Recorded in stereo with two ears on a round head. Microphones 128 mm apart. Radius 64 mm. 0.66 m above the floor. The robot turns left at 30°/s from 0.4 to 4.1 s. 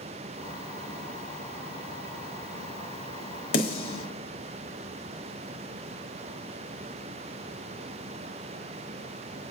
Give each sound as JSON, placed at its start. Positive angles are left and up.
{"t": 3.5, "sound": "a snare drum", "side_deg": 65, "distance_m": 1.1}